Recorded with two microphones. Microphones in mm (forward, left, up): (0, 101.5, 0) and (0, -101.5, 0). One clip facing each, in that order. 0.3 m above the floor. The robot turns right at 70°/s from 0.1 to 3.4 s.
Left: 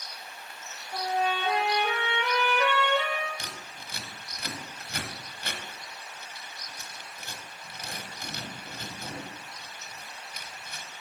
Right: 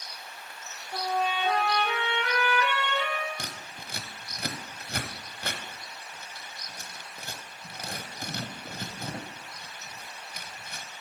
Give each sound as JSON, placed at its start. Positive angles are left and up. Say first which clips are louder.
{"t": 0.9, "sound": "a trumpet", "louder": "left 1 dB", "azimuth_deg": -20, "distance_m": 1.8}
{"t": 3.4, "sound": "scissors", "louder": "right 1 dB", "side_deg": -50, "distance_m": 0.8}